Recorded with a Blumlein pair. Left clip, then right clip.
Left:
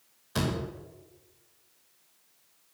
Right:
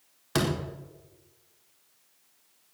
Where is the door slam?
30° right, 4.5 m.